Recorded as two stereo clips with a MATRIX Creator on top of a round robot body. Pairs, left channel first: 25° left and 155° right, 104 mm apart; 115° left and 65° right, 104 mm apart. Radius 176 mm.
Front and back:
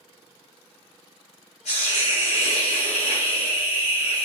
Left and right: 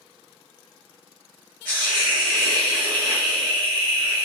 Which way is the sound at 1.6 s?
35° left.